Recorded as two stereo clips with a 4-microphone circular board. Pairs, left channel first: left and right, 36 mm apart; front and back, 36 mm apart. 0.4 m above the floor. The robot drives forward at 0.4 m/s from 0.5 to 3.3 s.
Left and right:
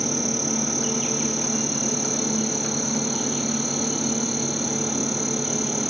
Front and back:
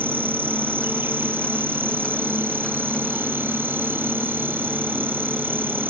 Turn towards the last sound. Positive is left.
turn(degrees=175)